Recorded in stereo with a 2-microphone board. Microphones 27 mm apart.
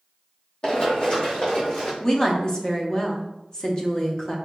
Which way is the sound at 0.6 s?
35° left (ahead or behind).